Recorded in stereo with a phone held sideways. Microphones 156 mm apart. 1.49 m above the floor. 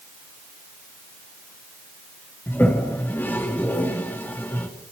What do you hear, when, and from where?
2.5 s a toilet flushing: 15° left (ahead or behind), 3.5 m